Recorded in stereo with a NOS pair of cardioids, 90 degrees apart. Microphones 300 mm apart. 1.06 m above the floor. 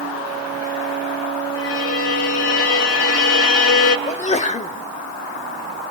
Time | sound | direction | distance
1.6 | a violin | 50° left | 2.5 m
4.1 | a sneeze | 25° left | 1.8 m